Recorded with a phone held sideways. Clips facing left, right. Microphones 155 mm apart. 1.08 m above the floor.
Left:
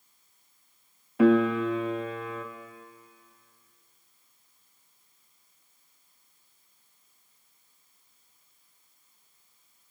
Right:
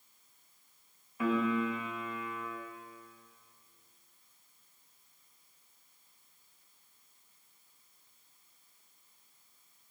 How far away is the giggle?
No giggle in this recording.